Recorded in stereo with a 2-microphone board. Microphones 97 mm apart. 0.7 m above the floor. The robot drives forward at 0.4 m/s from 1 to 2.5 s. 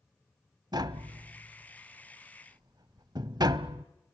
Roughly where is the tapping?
Right.